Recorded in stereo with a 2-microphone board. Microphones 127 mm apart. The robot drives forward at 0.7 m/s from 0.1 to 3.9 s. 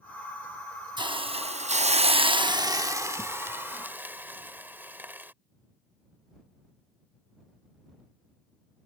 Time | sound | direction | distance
1.0 | a hiss | 35° right (ahead or behind) | ?